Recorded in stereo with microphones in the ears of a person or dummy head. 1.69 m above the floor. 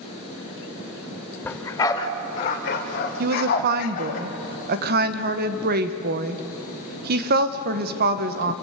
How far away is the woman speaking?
About 1.3 m.